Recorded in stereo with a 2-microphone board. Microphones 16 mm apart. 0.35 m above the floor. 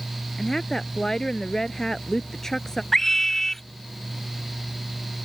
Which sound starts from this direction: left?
A woman speaking, at 0.4 s.